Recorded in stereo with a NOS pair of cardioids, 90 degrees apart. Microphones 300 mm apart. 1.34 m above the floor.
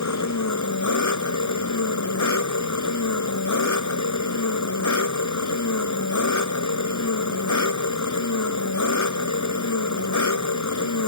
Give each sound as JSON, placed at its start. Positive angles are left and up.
{"t": 0.0, "sound": "an engine running", "azimuth_deg": 65}